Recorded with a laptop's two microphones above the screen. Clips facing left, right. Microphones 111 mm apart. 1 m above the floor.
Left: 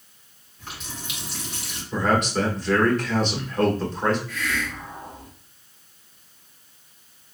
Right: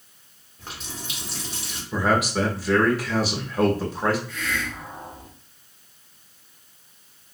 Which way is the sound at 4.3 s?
30° right (ahead or behind).